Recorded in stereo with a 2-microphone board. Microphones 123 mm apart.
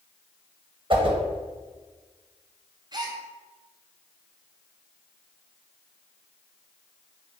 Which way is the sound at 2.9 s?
35° right (ahead or behind).